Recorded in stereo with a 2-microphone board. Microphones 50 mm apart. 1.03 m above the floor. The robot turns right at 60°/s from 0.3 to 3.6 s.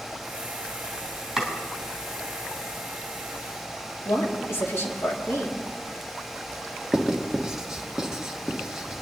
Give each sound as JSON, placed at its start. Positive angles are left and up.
{"t": 1.4, "sound": "chopping", "side_deg": -10, "distance_m": 3.0}
{"t": 4.0, "sound": "a woman speaking", "side_deg": 70, "distance_m": 2.5}
{"t": 6.9, "sound": "writing", "side_deg": -10, "distance_m": 1.5}